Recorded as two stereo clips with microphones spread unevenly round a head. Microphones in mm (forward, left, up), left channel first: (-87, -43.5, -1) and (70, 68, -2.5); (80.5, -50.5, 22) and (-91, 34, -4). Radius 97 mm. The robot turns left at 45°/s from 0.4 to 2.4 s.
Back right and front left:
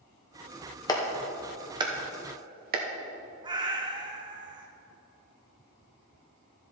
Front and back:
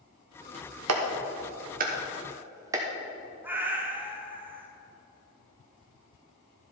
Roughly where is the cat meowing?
Left.